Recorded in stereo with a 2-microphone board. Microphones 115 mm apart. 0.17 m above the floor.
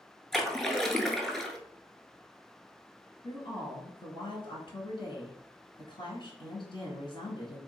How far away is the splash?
About 0.6 m.